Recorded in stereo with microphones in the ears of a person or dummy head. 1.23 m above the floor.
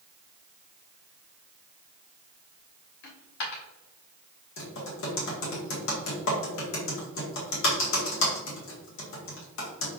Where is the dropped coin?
55° left (ahead or behind), 1.0 m.